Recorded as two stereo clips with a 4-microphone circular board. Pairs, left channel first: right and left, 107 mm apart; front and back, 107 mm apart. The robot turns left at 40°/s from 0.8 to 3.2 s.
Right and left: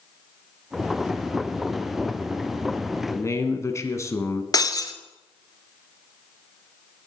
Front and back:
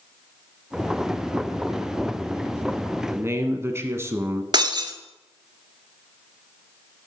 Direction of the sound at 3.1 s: 125° right.